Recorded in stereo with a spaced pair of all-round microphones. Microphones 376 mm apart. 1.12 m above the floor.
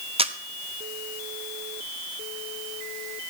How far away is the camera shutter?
About 0.8 m.